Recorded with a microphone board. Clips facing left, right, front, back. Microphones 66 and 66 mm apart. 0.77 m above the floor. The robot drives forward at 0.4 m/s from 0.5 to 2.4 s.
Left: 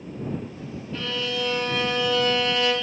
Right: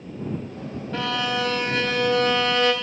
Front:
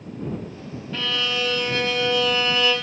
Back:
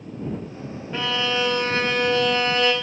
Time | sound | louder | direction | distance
0.9 | a violin | right 4 dB, back 3 dB | 105° right | 1.1 m